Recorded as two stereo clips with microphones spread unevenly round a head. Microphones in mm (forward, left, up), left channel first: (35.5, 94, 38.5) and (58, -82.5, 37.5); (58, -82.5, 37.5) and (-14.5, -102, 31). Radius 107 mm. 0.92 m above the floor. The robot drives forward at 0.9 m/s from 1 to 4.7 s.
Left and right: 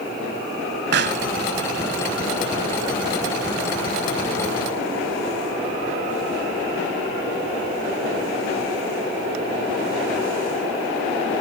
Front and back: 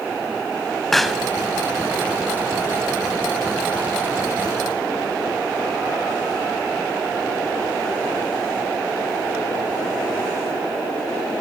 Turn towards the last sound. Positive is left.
turn(degrees=-160)